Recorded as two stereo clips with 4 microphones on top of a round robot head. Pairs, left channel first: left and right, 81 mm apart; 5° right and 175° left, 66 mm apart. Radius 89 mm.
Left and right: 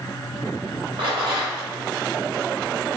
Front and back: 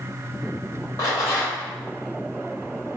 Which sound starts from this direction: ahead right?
A rattle, at 1.0 s.